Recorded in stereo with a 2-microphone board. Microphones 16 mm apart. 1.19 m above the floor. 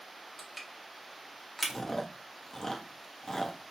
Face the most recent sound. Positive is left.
turn(degrees=30)  # may be behind; listen again after turning